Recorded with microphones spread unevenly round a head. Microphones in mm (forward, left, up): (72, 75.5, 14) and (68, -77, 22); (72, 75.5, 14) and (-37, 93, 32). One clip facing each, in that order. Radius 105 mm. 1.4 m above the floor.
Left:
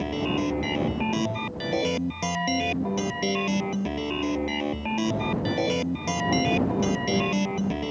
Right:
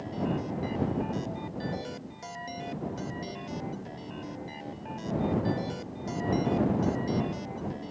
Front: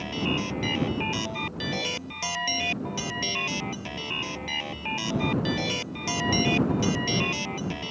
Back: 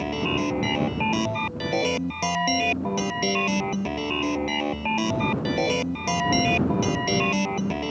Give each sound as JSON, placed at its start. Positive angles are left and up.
{"t": 0.0, "sound": "a machine running", "azimuth_deg": 130}